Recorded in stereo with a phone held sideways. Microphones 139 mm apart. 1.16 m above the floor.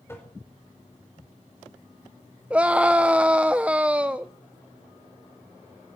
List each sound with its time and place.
0.1 s tapping: 15° left (ahead or behind), 4.5 m
2.5 s a scream: 10° right (ahead or behind), 0.6 m